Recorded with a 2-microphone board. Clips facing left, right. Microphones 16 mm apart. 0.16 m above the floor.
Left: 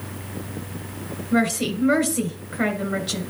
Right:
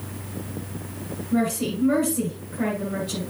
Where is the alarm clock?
I don't hear an alarm clock.